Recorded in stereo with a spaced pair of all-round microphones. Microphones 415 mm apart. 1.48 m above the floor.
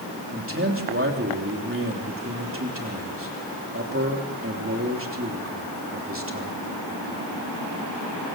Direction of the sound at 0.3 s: 30° right (ahead or behind).